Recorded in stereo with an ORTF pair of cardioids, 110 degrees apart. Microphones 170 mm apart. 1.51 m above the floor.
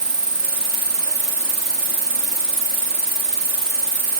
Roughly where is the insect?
Ahead.